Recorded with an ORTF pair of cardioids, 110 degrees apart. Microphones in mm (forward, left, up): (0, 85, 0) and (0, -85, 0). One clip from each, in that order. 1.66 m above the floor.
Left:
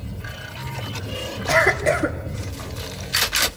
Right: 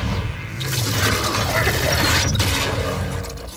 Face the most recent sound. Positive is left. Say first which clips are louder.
# left 7 dB
turn(degrees=25)